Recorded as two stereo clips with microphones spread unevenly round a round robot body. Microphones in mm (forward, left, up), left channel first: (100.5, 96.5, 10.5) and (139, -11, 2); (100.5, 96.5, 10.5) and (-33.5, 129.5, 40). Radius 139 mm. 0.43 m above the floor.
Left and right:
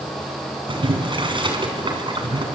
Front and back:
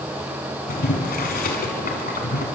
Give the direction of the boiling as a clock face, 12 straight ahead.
1 o'clock.